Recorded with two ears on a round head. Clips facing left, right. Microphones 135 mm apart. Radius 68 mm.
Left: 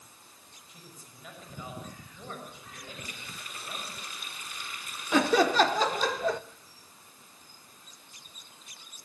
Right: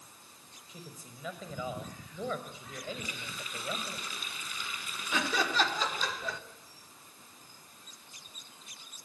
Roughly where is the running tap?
Right.